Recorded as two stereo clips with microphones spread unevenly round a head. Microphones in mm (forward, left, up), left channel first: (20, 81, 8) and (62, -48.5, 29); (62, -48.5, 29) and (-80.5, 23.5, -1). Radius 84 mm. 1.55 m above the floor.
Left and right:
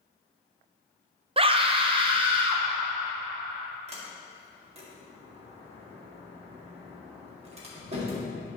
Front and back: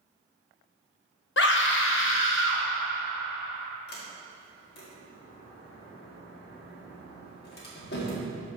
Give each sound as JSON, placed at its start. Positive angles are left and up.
{"t": 1.4, "sound": "a scream", "azimuth_deg": -25, "distance_m": 0.9}
{"t": 3.9, "sound": "a sliding door", "azimuth_deg": -35, "distance_m": 2.0}